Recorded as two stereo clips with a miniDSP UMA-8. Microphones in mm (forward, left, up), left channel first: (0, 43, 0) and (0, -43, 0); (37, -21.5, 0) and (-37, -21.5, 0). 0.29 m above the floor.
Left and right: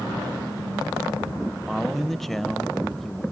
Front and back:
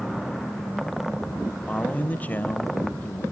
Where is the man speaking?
10° left, 0.9 m.